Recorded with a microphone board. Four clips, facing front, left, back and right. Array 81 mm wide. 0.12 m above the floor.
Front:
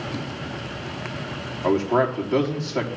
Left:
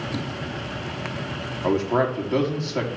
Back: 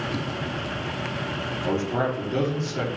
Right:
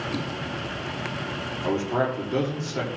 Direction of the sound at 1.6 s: 35° left.